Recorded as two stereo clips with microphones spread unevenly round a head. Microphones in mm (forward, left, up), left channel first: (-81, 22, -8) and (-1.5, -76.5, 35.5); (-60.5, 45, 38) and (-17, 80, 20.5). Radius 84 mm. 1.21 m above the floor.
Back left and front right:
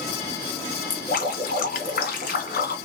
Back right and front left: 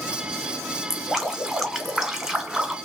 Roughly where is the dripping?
Behind left.